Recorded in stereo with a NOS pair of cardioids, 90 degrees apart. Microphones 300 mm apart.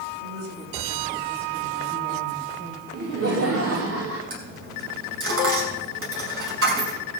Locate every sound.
0.2 s a woman speaking: 60° right, 8 m; by 2.8 s 50° right, 6.5 m
2.9 s laughter: 50° right, 2.5 m
4.3 s a dropped coin: 45° right, 6 m